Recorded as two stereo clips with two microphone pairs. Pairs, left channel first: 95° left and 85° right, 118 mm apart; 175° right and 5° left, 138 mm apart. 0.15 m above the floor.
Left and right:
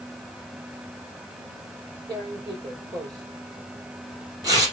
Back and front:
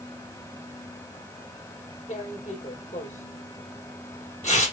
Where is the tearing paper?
140° right, 3 m.